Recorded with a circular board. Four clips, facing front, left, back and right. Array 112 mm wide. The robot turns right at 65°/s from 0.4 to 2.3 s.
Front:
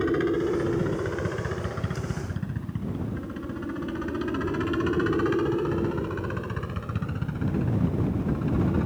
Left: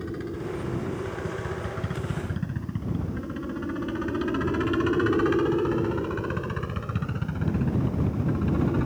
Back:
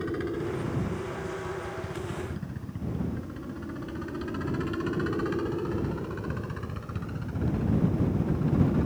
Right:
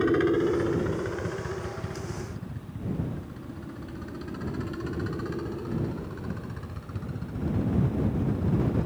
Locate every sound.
0.0 s a helicopter: 60° right; by 8.9 s 65° left